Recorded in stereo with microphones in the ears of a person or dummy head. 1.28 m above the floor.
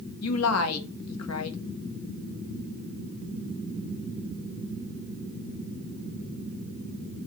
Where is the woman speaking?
80° left, 0.9 m.